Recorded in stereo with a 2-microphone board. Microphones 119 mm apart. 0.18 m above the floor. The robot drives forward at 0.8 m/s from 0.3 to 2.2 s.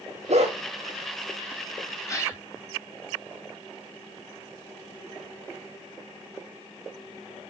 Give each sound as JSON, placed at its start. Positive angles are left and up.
{"t": 0.3, "sound": "a dog barking", "side_deg": -65, "distance_m": 3.5}
{"t": 2.1, "sound": "a gasp", "side_deg": 25, "distance_m": 2.0}